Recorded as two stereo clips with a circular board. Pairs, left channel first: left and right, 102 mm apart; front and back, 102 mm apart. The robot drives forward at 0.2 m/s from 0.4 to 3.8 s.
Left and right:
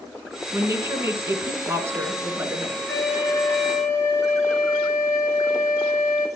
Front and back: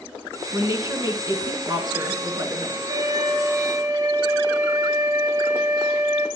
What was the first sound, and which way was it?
A woman speaking, 140° right.